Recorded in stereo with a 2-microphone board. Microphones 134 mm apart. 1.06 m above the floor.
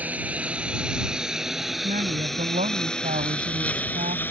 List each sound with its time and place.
0.0 s a lawn mower: 10° right (ahead or behind); by 4.3 s 15° left (ahead or behind)
1.8 s a woman speaking: 85° right